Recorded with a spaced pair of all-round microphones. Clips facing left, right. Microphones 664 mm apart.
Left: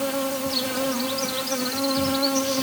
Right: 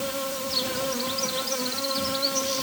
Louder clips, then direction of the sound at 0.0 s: Left 5 dB; 85° left.